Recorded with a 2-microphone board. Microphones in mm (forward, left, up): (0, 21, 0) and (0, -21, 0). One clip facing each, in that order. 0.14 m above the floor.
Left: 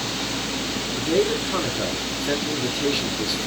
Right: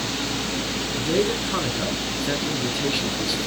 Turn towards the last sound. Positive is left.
turn(degrees=-5)  # may be behind; listen again after turning